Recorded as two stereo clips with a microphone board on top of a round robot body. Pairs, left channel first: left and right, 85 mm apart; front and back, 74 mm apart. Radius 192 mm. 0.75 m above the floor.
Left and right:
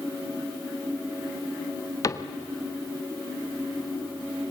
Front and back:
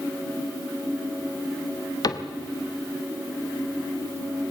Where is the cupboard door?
40° left, 1.1 m.